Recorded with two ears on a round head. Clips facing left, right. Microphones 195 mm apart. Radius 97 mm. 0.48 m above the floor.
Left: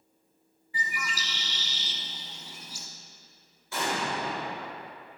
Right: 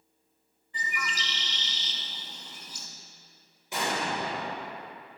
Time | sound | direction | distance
0.7 | a bird | 10° left (ahead or behind) | 0.5 m
3.7 | an explosion | 15° right (ahead or behind) | 1.8 m